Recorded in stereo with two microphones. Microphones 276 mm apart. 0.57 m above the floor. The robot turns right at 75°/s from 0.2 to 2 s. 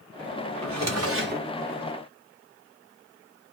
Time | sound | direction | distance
0.6 | a drawer | 90° right | 0.7 m